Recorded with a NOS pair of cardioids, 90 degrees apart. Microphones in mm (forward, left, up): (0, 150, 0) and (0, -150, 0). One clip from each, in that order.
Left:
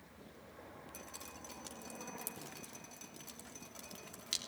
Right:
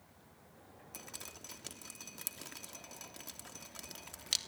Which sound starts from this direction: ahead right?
Dripping, at 0.9 s.